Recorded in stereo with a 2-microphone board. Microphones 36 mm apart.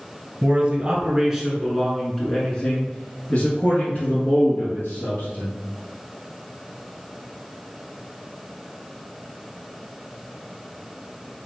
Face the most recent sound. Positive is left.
turn(degrees=60)  # may be behind; listen again after turning